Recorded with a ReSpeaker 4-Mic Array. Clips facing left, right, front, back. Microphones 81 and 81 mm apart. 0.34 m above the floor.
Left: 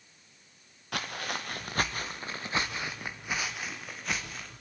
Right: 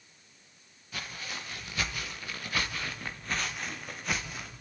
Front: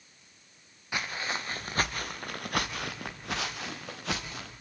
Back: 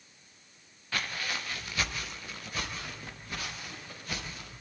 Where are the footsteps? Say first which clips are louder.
Left 6 dB, front 2 dB; 75° left, 3 m; by 4.5 s 5° right, 5 m.